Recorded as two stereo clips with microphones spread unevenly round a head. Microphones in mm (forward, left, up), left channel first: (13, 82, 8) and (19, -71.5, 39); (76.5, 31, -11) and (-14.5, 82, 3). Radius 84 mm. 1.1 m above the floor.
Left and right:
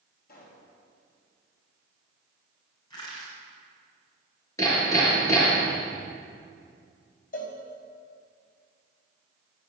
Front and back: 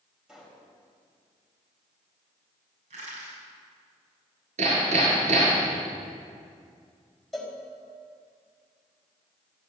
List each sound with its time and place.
0.3 s a pop: 65° left, 5.5 m
2.9 s crushing: 160° left, 7.5 m
4.6 s hammering: 165° left, 6.5 m
7.3 s a cowbell: 60° left, 4 m